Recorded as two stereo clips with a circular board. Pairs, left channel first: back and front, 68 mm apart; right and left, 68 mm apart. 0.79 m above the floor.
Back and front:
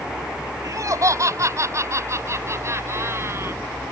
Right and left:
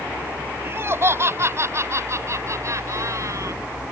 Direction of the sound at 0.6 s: 35° left.